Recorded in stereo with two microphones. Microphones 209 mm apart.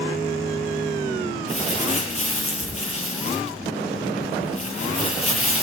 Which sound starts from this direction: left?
Crumpling, at 1.5 s.